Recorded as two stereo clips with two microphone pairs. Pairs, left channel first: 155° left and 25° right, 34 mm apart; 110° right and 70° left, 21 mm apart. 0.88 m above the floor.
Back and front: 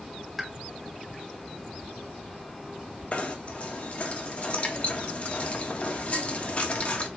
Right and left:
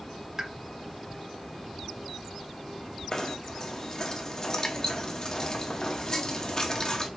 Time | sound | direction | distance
0.4 | a pop | 60° left | 0.7 m
3.1 | knocking | 165° right | 1.1 m